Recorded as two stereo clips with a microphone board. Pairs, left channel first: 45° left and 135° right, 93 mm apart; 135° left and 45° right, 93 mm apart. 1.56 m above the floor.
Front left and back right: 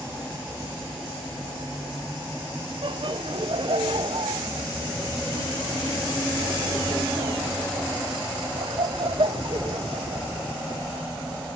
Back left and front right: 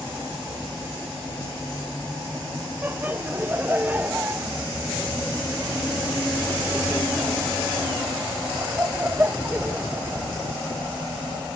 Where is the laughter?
115° right, 0.7 m.